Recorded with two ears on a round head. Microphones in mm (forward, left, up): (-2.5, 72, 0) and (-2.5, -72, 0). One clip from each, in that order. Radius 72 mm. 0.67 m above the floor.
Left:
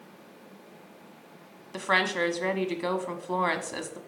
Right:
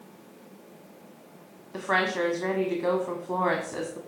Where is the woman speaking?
60° left (ahead or behind), 1.3 m.